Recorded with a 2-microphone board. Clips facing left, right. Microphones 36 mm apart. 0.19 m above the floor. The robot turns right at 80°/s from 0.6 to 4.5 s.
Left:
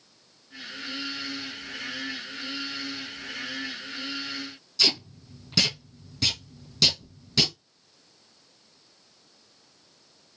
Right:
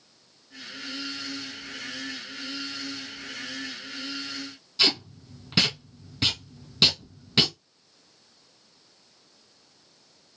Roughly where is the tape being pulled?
Right.